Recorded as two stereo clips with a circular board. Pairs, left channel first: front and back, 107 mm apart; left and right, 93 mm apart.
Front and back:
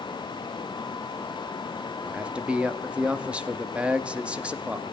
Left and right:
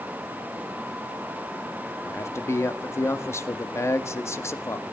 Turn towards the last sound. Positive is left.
turn(degrees=110)